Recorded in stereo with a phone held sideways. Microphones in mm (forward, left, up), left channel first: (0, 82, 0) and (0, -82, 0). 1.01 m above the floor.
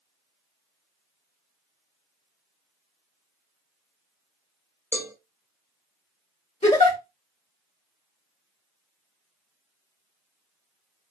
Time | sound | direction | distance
4.9 | a cowbell | 10° right (ahead or behind) | 0.9 m
6.6 | a giggle | 45° left (ahead or behind) | 1.2 m